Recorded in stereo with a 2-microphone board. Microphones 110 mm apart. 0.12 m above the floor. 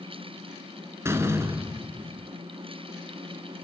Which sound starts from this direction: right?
A door slam, at 1.1 s.